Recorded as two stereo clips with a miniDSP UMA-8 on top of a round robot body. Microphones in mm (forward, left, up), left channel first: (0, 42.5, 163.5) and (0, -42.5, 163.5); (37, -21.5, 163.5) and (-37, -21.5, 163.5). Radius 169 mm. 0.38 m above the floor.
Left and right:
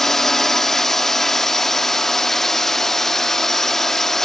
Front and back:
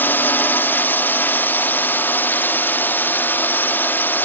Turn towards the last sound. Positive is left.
turn(degrees=10)